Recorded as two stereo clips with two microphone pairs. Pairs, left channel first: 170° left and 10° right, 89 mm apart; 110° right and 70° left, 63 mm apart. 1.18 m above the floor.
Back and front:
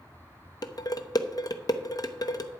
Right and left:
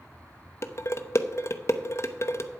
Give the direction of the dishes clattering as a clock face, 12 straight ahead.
5 o'clock.